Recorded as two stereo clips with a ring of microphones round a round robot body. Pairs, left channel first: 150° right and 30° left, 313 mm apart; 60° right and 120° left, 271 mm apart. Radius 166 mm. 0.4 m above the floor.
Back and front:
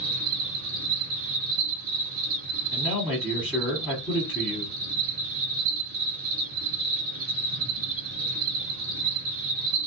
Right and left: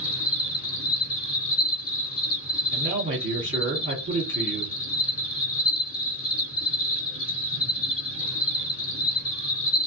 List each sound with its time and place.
0.0 s an insect: 20° right, 2.5 m
2.7 s a man speaking: 125° left, 1.4 m